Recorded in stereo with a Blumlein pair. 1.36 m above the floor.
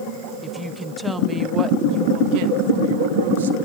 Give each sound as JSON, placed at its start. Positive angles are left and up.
{"t": 0.4, "sound": "a woman speaking", "azimuth_deg": 5, "distance_m": 1.4}